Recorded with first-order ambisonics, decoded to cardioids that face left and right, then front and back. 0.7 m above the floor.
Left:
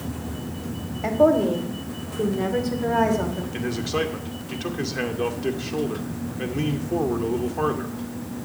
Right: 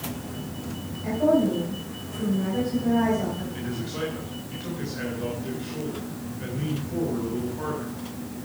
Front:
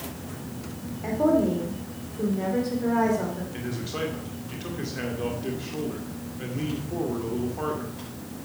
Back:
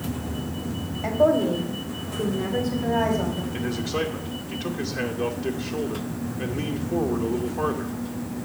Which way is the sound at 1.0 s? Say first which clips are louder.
Left 4 dB, back 3 dB; 105° left.